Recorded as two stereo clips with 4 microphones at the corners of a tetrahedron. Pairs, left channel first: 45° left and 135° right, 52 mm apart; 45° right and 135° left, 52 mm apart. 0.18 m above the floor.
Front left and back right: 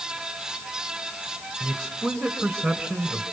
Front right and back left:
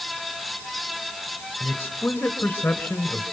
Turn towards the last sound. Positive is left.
turn(degrees=-45)